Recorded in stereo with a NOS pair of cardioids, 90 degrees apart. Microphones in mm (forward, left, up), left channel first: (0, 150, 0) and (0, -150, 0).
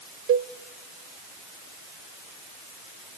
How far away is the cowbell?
About 0.6 m.